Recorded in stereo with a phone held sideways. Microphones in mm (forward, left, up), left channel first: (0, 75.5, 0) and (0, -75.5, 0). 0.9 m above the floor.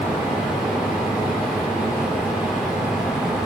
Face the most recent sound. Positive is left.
turn(degrees=-5)  # may be behind; listen again after turning